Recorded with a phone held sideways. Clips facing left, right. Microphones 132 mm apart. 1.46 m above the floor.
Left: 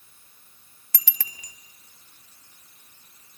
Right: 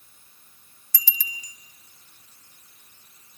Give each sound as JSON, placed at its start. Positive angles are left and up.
{"t": 0.9, "sound": "a bicycle bell", "side_deg": 70, "distance_m": 2.0}